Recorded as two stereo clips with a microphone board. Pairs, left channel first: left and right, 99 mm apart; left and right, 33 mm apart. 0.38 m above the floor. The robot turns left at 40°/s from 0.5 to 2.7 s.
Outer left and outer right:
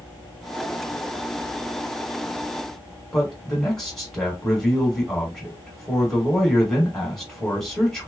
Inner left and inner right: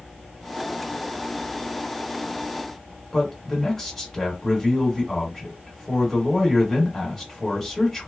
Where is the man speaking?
5° left (ahead or behind), 1.7 m.